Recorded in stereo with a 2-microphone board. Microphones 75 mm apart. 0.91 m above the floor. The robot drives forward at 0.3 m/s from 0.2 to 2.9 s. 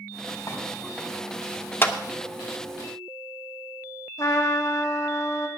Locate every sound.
0.5 s a clink: 45° left (ahead or behind), 4 m
1.8 s a clap: 30° left (ahead or behind), 1.0 m
4.2 s a trumpet: 50° left (ahead or behind), 1.9 m